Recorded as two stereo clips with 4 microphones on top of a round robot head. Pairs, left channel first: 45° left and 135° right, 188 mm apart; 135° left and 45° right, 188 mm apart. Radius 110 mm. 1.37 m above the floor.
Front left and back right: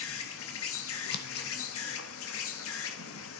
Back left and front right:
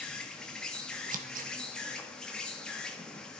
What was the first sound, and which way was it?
An insect, 50° left.